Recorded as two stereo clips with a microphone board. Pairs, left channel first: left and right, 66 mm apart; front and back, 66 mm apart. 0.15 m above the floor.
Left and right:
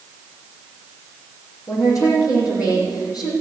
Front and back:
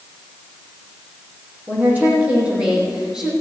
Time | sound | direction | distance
1.7 | a woman speaking | 115° left | 6.5 m